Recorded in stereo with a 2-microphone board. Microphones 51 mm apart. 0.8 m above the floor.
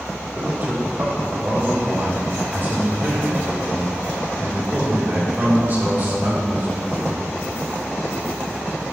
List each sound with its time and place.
0.3 s a man speaking: 45° right (ahead or behind), 2.5 m